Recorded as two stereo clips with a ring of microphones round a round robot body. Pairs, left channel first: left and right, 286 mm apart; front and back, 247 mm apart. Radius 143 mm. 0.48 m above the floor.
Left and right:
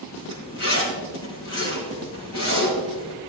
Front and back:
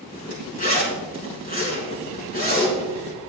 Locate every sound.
0.1 s a zipper: 55° left, 4.5 m